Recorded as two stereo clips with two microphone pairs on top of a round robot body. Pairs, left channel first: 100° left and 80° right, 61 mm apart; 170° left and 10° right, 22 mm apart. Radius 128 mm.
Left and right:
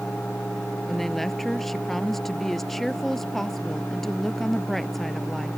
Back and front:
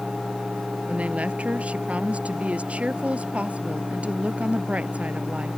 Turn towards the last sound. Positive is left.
turn(degrees=15)